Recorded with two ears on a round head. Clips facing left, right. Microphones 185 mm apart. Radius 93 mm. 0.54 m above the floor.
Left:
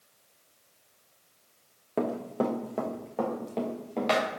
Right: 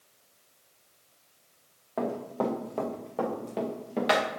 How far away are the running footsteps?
About 2 m.